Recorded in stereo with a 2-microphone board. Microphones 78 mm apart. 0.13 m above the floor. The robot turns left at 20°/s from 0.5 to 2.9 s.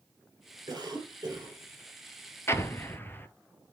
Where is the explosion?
35° left (ahead or behind), 0.6 m; by 3.3 s 25° left (ahead or behind), 0.6 m.